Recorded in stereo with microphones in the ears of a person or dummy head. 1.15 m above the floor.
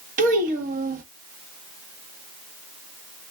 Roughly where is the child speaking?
Right.